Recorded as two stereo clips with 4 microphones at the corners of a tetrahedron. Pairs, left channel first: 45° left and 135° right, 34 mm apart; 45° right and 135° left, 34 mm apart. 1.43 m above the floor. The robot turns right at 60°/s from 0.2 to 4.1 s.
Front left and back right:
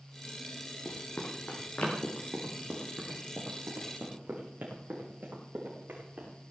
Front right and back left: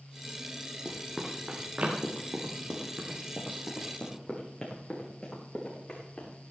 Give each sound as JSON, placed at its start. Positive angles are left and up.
{"t": 0.8, "sound": "running footsteps", "azimuth_deg": 35, "distance_m": 3.5}